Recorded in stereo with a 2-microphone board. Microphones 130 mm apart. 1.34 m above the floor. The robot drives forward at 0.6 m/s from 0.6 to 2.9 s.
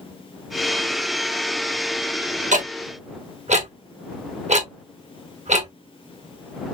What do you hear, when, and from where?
2.5 s ticking: 70° right (ahead or behind), 0.7 m; by 5.7 s 60° right (ahead or behind), 0.8 m